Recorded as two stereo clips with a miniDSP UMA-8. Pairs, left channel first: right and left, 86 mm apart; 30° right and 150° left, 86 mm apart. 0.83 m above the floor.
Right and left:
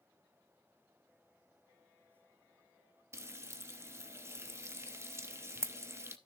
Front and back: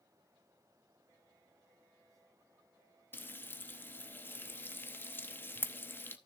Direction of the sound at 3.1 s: 35° left.